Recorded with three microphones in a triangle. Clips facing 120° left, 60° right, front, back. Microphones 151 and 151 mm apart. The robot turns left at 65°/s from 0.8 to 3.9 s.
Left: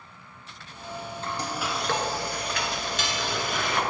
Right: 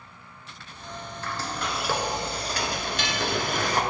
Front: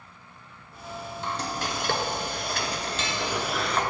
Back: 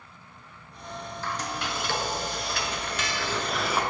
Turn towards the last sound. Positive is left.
turn(degrees=-110)